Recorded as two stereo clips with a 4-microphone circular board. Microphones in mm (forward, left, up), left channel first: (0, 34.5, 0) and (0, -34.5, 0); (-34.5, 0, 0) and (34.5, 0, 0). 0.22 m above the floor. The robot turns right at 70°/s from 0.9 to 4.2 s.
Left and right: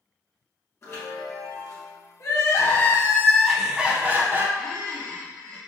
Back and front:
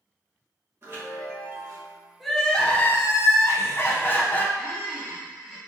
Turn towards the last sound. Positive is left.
turn(degrees=-100)